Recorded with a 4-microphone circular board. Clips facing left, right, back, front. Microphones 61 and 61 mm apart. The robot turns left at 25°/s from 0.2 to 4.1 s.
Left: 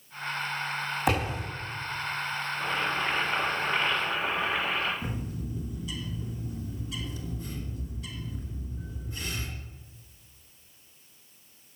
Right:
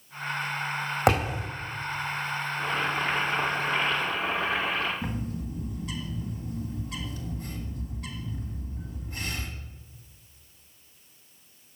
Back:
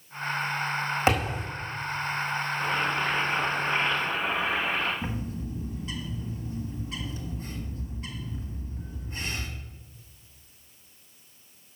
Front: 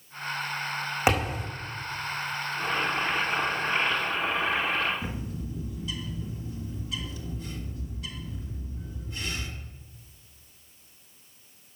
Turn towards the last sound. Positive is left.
turn(degrees=-125)